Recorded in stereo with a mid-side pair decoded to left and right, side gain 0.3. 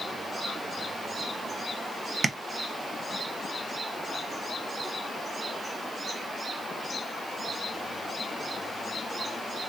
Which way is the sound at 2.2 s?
50° right.